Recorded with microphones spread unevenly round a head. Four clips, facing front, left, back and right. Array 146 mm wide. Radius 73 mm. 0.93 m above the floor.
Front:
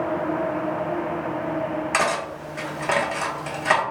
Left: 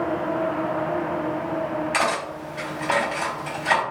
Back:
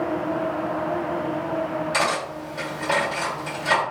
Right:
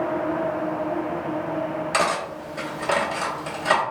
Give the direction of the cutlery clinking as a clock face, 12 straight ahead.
1 o'clock.